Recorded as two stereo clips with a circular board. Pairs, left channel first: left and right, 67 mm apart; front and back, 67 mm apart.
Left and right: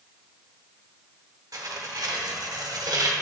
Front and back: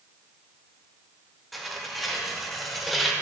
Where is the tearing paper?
90° right, 0.9 m.